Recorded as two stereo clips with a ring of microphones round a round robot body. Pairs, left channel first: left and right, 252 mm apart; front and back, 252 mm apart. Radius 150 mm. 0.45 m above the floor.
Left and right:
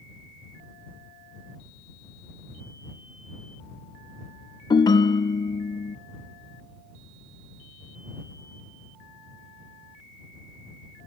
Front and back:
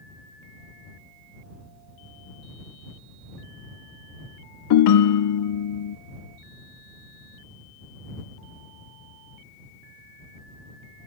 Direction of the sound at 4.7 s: 15° left.